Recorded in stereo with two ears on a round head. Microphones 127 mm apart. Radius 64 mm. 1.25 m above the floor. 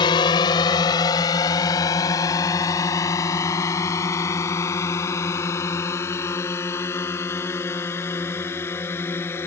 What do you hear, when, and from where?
0.0 s a drone: 30° left (ahead or behind); by 9.5 s 15° left (ahead or behind)